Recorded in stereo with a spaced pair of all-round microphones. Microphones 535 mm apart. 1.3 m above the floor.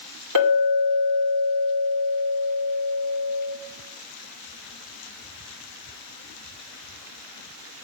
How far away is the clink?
About 2.5 m.